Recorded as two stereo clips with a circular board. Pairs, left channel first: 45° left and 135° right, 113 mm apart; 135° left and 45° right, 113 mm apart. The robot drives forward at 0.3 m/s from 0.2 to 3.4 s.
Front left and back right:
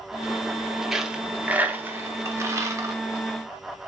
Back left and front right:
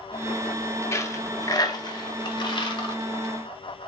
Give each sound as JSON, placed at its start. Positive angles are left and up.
{"t": 0.9, "sound": "a dropped coin", "azimuth_deg": 145, "distance_m": 0.6}